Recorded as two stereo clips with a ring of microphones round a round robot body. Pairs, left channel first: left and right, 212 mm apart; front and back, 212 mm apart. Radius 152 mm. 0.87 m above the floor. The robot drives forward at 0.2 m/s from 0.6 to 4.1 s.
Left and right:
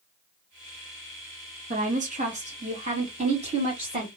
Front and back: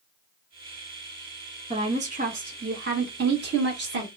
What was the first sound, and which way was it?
A woman speaking, 130° right.